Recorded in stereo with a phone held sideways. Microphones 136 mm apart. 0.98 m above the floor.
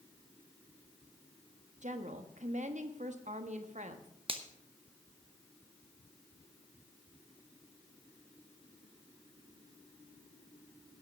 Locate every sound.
1.8 s a woman speaking: 60° right (ahead or behind), 1.3 m
4.3 s a finger snap: 40° right (ahead or behind), 1.0 m